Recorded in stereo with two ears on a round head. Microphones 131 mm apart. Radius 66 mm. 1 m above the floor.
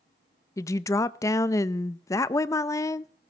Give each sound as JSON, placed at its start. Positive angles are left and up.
{"t": 0.6, "sound": "a woman speaking", "side_deg": 20, "distance_m": 0.5}